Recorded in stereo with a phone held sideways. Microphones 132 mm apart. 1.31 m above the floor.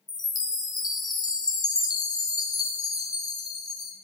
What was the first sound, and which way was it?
A chime, 30° left (ahead or behind).